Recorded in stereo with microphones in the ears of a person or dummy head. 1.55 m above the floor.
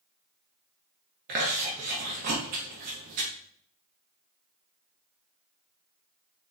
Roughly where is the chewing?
Right.